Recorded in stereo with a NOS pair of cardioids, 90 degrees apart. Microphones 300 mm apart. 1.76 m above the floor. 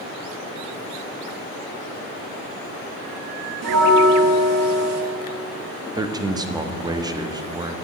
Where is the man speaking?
15° right, 0.5 m.